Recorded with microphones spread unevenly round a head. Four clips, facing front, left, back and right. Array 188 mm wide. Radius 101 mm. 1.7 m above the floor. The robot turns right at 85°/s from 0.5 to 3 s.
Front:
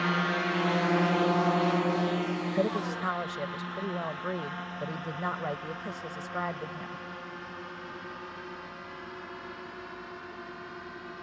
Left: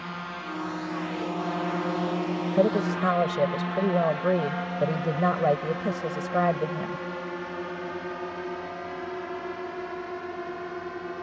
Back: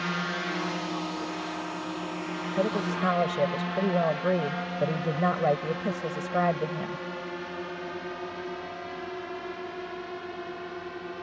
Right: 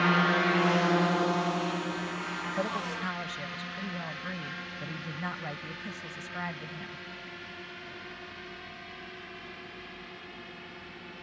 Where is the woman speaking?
80° left; by 7.0 s 120° left.